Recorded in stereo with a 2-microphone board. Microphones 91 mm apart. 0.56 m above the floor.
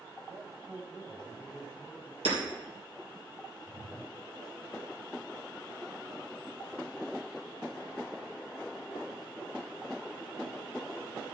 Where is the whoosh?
75° right (ahead or behind), 2 m.